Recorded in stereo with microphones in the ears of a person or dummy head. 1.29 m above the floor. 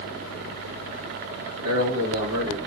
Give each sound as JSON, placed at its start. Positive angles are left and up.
{"t": 1.6, "sound": "a man speaking", "side_deg": -45, "distance_m": 1.7}